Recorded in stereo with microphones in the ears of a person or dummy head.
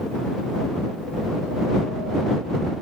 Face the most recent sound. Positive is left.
No sound to turn to.